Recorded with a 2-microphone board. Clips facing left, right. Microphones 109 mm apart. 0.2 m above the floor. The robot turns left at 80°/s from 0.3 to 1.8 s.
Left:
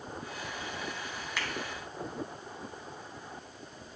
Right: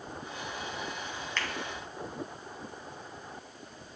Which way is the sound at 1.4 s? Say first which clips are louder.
Right 1 dB; 10° left (ahead or behind).